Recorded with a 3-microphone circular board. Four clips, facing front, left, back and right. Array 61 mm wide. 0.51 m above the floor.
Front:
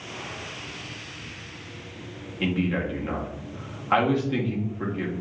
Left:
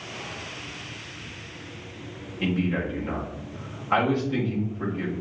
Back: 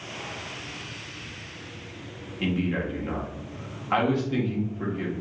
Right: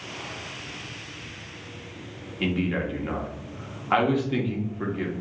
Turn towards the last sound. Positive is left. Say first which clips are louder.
# even, front 1 dB
turn(degrees=-65)